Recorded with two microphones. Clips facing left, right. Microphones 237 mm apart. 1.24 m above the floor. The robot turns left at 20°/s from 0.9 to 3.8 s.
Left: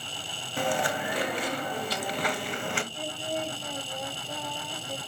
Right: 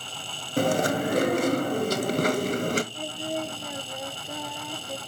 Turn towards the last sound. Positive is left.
turn(degrees=-15)  # may be behind; listen again after turning